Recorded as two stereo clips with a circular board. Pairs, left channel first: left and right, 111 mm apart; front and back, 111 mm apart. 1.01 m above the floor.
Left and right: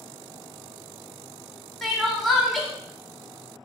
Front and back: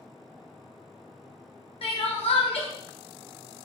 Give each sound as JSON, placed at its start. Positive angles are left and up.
{"t": 1.8, "sound": "crying", "azimuth_deg": 0, "distance_m": 0.8}